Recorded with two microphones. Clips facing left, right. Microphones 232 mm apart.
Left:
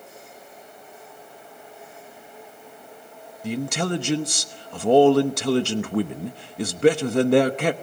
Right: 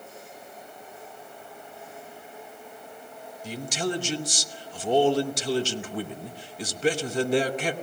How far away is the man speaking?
About 0.9 m.